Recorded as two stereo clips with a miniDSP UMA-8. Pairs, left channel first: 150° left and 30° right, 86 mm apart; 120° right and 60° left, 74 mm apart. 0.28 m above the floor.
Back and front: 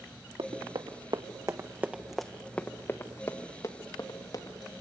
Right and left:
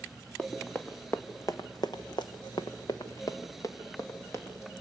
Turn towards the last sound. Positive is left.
turn(degrees=-175)